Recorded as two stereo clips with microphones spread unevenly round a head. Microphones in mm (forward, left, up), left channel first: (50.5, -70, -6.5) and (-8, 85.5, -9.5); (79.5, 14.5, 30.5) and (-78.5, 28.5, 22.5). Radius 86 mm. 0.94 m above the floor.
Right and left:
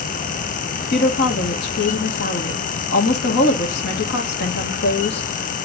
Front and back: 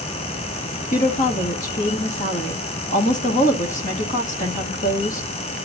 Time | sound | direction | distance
0.9 | a woman speaking | 50° right | 2.0 m